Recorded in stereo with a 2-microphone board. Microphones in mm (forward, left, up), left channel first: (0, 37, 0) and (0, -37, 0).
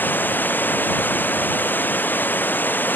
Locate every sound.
0.0 s running water: 25° left (ahead or behind)